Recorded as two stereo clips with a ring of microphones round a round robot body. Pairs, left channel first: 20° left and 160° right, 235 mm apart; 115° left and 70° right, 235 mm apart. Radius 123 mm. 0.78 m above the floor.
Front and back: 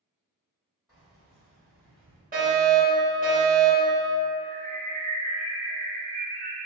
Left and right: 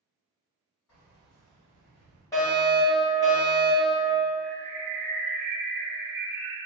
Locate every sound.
0.9 s keys jangling: 115° left, 1.7 m
2.3 s a fire alarm: straight behind, 1.9 m
4.4 s a bird: 100° right, 0.8 m